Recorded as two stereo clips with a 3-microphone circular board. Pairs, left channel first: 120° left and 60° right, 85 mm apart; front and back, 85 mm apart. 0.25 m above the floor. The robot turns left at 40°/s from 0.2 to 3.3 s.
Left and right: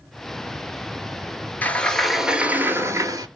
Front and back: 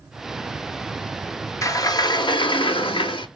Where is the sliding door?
50° left, 0.7 m; by 3.3 s 15° right, 0.7 m.